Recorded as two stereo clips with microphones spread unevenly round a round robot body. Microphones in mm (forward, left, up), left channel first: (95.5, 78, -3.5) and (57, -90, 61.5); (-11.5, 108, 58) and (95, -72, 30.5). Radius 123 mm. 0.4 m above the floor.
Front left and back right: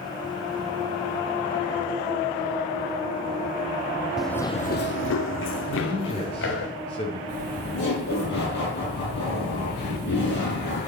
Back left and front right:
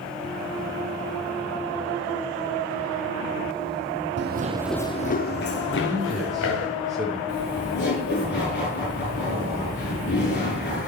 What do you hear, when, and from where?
4.2 s running footsteps: 25° right, 0.9 m; by 6.7 s 105° left, 3 m
5.7 s a man speaking: 30° left, 6.5 m
7.3 s laughter: 90° left, 9.5 m